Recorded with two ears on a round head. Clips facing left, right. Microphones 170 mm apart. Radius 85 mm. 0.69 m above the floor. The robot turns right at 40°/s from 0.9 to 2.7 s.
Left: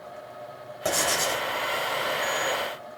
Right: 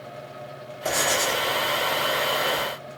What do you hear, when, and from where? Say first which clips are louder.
0.8 s writing: right 2 dB; 20° left (ahead or behind), 1.0 m; by 1.5 s 5° right (ahead or behind), 1.0 m